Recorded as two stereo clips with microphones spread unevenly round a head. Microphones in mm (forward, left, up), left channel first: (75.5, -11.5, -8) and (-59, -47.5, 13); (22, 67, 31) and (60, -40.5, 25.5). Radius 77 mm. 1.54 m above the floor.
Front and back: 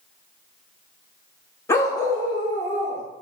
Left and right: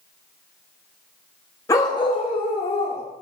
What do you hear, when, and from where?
1.7 s a dog barking: 85° left, 1.0 m